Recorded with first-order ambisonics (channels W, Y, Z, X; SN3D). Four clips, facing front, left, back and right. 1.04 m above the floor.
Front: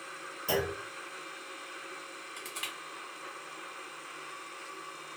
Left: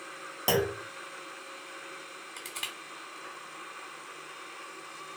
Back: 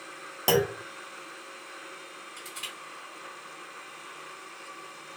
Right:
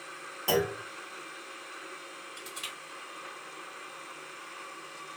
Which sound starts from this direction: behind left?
A clunk, at 0.5 s.